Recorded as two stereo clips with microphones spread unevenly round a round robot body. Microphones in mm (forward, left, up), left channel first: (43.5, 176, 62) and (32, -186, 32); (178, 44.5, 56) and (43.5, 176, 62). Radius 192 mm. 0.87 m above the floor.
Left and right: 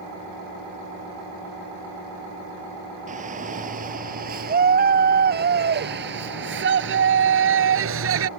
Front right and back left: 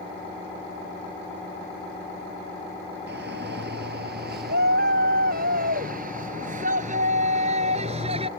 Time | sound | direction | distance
3.1 | a shout | 165° right | ?